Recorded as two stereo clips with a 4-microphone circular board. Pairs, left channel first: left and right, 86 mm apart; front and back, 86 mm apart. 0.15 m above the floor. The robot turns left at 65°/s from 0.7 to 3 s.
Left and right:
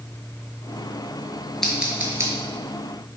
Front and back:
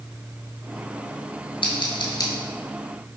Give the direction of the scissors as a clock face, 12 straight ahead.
12 o'clock.